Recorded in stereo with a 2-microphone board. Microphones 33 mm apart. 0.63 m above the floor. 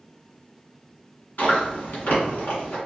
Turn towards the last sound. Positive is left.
turn(degrees=70)  # may be behind; listen again after turning